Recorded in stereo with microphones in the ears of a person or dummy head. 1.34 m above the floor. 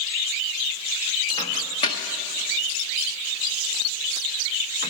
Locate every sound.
1.4 s a microwave: 30° left (ahead or behind), 0.8 m